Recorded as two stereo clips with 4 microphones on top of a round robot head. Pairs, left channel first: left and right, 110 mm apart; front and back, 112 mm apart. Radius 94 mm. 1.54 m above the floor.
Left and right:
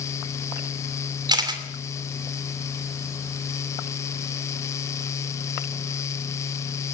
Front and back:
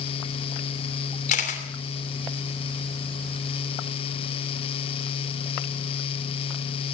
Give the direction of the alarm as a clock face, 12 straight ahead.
No alarm in this recording.